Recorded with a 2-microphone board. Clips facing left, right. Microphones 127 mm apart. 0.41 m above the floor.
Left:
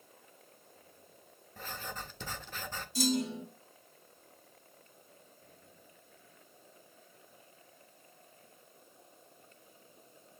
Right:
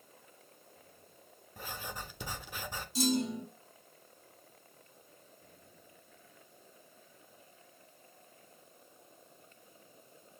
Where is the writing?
10° right (ahead or behind), 0.7 m.